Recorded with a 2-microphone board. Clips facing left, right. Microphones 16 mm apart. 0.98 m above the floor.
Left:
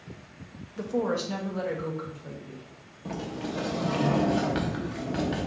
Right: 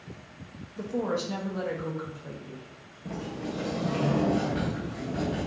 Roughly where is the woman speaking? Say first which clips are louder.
Left 2 dB; centre.